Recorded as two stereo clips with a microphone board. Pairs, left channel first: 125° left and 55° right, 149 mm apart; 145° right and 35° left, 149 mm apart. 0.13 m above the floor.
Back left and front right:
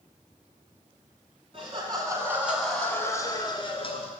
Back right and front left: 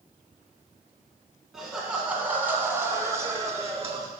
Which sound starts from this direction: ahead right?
Laughter, at 1.5 s.